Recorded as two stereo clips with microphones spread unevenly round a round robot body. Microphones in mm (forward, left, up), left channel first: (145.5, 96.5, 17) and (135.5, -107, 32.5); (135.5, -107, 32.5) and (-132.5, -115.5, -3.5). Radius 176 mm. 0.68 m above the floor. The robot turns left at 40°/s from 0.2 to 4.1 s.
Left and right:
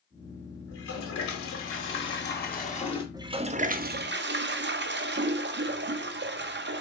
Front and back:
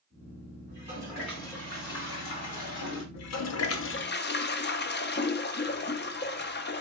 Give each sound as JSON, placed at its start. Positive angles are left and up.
{"t": 0.7, "sound": "a toilet flushing", "azimuth_deg": 110, "distance_m": 1.6}
{"t": 3.1, "sound": "a toilet flushing", "azimuth_deg": -15, "distance_m": 0.7}